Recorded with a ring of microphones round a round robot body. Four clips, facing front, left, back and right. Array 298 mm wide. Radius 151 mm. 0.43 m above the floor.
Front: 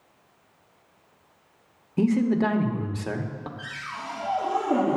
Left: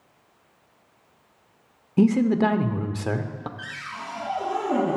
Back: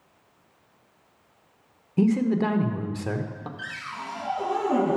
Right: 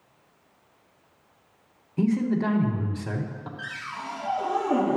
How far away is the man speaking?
About 1.0 m.